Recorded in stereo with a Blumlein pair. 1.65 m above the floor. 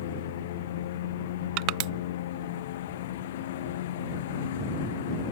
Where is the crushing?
40° right.